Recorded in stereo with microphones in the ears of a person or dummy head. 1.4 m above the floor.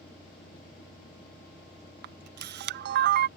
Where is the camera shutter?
60° right (ahead or behind).